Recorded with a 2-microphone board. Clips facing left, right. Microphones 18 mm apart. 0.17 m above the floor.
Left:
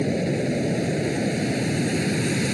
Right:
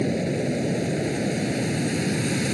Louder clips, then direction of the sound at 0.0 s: Left 1 dB; 5° left (ahead or behind).